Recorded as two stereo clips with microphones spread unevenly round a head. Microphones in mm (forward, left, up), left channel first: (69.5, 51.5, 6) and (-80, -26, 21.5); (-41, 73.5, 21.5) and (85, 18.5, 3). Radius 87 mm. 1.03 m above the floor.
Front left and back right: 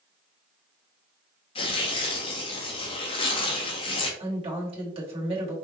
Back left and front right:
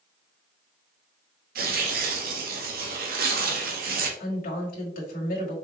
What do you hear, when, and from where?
1.6 s tearing paper: 35° right, 1.4 m
4.2 s a woman speaking: 150° left, 2 m